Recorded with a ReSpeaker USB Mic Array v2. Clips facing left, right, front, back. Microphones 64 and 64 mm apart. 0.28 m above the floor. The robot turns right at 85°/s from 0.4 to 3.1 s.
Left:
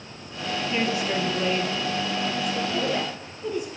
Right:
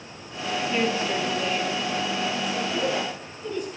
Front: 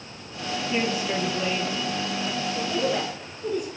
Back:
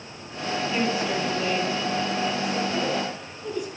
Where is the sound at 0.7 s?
10° left, 1.3 m; by 2.6 s 175° left, 1.3 m.